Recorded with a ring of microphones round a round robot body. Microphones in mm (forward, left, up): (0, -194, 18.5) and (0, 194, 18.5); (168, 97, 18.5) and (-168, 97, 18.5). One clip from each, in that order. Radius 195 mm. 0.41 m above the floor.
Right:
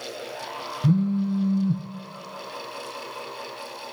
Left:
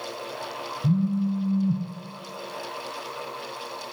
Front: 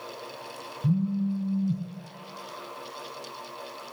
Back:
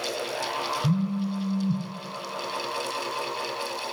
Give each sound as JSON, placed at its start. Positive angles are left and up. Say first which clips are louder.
{"t": 0.8, "sound": "a phone buzzing", "louder": "right 3 dB, back 1 dB", "azimuth_deg": -85, "distance_m": 0.8}